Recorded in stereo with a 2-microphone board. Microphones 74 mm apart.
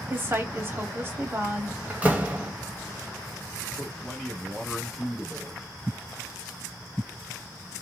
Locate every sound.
0.1 s a woman speaking: 30° right (ahead or behind), 1.5 m
1.9 s a door slam: 20° right (ahead or behind), 0.9 m
3.8 s a man speaking: centre (ahead or behind), 1.5 m